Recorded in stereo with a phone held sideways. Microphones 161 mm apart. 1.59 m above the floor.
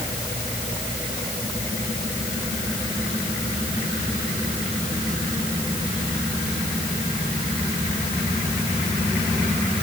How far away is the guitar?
No guitar in this recording.